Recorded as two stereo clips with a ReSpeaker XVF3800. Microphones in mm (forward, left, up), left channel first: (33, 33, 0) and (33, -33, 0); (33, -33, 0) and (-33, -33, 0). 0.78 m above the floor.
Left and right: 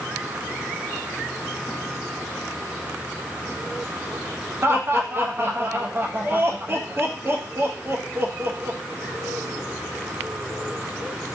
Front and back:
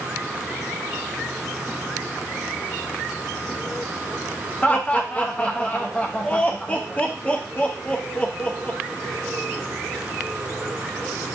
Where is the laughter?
60° right, 0.5 m.